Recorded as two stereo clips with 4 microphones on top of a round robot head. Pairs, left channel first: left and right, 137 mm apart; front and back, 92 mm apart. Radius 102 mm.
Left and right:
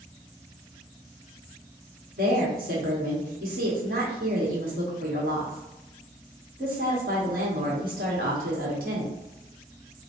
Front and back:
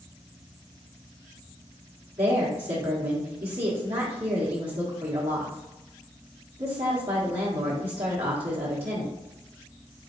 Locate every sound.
2.2 s a woman speaking: 130° right, 1.4 m